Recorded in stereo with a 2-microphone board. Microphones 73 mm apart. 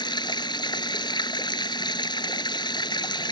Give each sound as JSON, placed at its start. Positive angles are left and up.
{"t": 0.0, "sound": "running water", "side_deg": 90}